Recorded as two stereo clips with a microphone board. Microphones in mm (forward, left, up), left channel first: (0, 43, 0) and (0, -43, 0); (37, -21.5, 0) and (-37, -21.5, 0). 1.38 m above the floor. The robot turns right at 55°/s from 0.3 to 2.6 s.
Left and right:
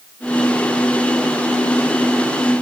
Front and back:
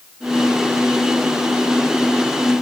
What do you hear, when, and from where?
Only background noise.